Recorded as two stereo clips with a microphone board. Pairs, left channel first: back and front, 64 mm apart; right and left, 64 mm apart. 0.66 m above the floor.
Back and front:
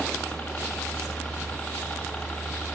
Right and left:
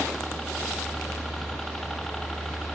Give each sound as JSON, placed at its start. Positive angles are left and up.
{"t": 0.0, "sound": "a helicopter", "azimuth_deg": -170}